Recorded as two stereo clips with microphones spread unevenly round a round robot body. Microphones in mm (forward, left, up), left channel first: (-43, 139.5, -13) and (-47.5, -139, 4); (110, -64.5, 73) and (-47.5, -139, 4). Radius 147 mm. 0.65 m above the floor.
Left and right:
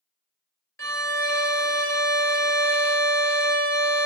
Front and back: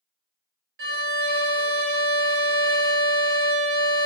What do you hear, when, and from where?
0.8 s a violin: 170° left, 1.1 m